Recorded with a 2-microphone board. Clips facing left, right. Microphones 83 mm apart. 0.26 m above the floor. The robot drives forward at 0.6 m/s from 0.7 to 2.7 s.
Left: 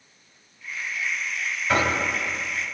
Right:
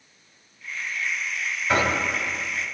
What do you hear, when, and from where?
1.7 s knocking: 10° right (ahead or behind), 1.5 m